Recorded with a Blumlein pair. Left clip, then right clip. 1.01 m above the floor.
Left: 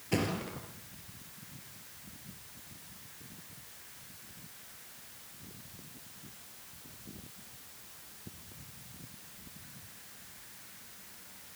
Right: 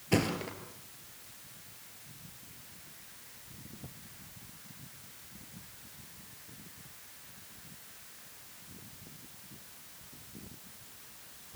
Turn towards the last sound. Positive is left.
turn(degrees=-10)